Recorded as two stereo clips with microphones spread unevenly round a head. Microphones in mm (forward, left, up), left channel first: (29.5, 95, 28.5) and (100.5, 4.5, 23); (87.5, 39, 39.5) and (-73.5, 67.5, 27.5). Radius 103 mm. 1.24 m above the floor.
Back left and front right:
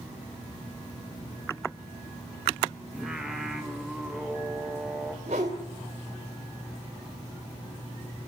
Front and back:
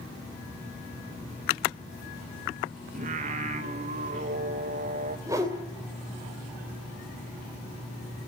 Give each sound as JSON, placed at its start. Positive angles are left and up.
{"t": 2.9, "sound": "singing", "azimuth_deg": -140, "distance_m": 1.5}
{"t": 5.3, "sound": "a whoosh", "azimuth_deg": -110, "distance_m": 2.5}